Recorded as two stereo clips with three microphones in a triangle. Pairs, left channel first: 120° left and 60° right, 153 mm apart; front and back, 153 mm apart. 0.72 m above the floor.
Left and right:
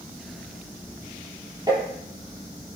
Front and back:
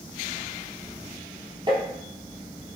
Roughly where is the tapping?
Behind right.